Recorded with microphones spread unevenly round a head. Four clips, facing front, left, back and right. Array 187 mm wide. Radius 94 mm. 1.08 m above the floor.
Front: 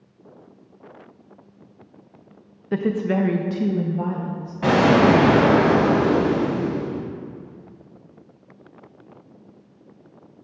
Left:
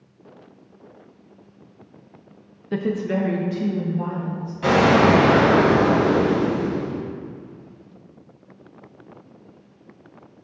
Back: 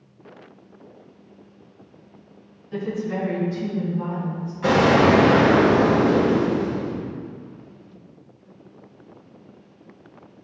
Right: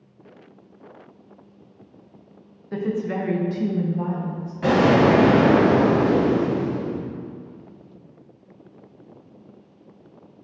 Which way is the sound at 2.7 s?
20° left.